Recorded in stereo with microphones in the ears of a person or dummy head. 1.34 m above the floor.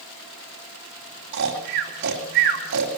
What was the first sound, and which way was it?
Snoring, 55° right (ahead or behind).